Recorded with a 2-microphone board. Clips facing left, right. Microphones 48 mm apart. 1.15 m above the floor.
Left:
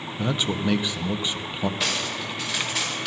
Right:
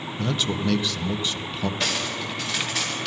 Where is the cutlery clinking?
5° left (ahead or behind), 3 m.